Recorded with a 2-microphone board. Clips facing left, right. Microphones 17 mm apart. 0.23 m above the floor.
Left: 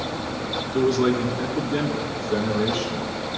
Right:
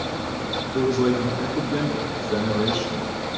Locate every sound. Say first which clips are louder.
0.7 s a man speaking: left 1 dB; 25° left (ahead or behind), 2.5 m; by 3.1 s 15° right (ahead or behind), 3.5 m